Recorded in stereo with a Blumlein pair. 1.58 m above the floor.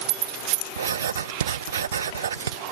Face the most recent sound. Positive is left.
turn(degrees=-65)